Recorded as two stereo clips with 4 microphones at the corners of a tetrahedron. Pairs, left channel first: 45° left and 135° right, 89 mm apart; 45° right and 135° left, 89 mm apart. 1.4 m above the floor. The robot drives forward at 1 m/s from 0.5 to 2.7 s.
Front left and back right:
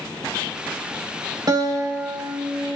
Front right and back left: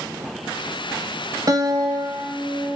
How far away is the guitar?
About 1.2 m.